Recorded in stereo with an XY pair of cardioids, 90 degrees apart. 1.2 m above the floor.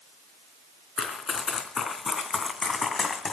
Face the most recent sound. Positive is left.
turn(degrees=55)